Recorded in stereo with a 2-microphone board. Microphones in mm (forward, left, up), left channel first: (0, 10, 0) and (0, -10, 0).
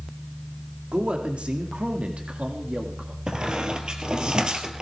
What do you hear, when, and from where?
0.9 s a man speaking: 70° right (ahead or behind), 2 m; by 3.2 s 75° right (ahead or behind), 1.6 m
3.3 s a squeak: 45° right (ahead or behind), 2.5 m